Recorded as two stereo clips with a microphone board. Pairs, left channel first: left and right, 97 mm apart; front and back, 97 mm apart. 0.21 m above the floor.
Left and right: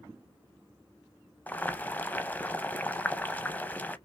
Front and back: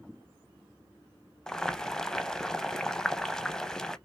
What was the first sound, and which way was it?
Boiling, 70° left.